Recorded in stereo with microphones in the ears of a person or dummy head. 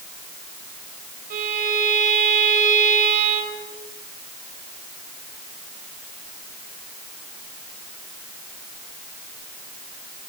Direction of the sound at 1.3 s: 50° right (ahead or behind).